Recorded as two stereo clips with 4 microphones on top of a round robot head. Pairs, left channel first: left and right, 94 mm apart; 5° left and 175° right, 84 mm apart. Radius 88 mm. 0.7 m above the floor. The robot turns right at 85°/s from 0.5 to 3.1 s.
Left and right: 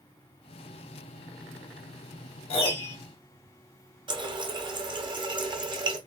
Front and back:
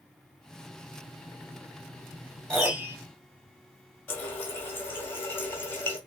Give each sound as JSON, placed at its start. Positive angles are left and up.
{"t": 2.5, "sound": "a piano", "azimuth_deg": 85, "distance_m": 1.9}
{"t": 4.1, "sound": "a running tap", "azimuth_deg": -60, "distance_m": 0.9}